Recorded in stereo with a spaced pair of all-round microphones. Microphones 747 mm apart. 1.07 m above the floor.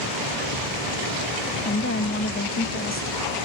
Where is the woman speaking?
15° left (ahead or behind), 1.0 m.